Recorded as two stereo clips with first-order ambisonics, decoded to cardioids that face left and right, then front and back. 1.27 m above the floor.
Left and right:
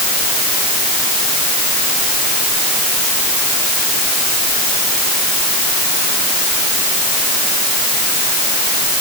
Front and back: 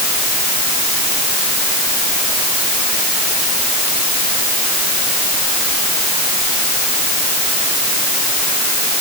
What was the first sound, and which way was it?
Only background noise.